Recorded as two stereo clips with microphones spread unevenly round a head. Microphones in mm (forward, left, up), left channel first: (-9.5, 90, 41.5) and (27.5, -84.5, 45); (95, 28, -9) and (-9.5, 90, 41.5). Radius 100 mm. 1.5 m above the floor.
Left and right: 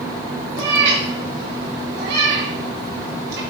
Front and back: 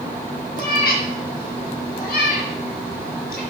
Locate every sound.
0.6 s a cat meowing: 60° right, 3 m; by 3.4 s 45° right, 4 m